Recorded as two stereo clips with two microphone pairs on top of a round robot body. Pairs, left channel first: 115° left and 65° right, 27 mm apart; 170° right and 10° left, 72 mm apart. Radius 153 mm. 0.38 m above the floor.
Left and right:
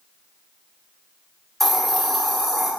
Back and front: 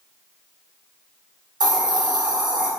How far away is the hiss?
About 1.0 m.